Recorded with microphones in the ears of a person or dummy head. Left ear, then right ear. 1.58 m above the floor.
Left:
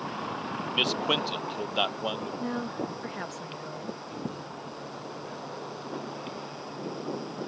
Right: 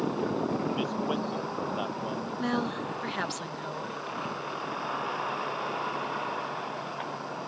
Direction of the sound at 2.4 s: 35° right (ahead or behind).